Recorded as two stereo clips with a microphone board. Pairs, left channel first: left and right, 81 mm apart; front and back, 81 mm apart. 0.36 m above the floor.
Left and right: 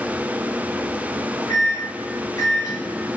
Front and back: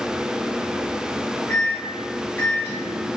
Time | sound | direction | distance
1.5 | a microwave | 55° left | 1.3 m